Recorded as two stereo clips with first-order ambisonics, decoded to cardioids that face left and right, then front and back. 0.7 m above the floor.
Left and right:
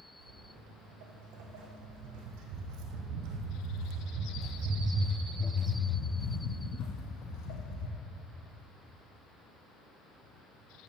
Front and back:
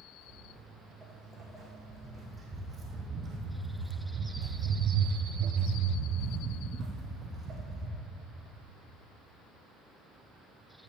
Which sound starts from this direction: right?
Footsteps, at 0.2 s.